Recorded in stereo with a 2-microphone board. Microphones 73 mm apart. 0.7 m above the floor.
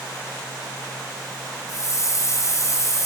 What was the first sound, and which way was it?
A hiss, 50° left (ahead or behind).